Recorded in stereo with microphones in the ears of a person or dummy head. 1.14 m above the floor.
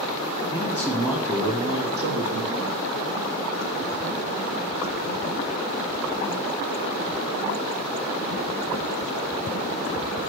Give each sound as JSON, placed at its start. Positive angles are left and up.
{"t": 0.5, "sound": "a man speaking", "side_deg": 20, "distance_m": 1.1}